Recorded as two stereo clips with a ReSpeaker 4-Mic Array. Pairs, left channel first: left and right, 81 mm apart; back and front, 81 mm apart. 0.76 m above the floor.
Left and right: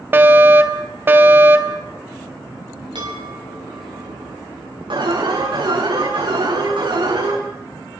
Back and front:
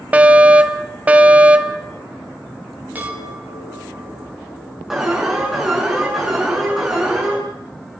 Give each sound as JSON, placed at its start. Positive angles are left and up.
{"t": 0.1, "sound": "a fire alarm", "azimuth_deg": -55, "distance_m": 1.5}
{"t": 3.0, "sound": "a chime", "azimuth_deg": -70, "distance_m": 6.5}
{"t": 4.9, "sound": "an alarm", "azimuth_deg": -85, "distance_m": 9.0}